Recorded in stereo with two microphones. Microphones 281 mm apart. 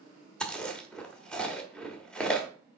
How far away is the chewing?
About 1.2 m.